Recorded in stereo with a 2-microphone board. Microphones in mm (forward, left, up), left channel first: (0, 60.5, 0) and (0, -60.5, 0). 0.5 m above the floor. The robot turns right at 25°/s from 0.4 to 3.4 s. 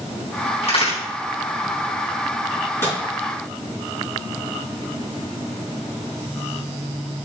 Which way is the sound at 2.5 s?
30° left (ahead or behind).